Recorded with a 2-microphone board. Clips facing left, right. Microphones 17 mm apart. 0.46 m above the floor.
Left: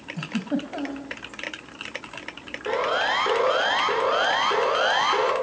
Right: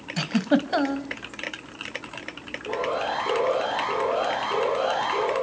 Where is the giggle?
70° right (ahead or behind), 2 m.